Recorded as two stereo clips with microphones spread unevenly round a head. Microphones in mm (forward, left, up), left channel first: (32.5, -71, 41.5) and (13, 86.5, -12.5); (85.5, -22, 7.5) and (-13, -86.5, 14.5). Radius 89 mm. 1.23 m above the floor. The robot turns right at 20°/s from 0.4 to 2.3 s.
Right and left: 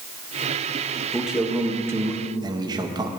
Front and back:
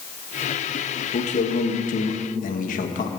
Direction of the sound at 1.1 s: 10° left.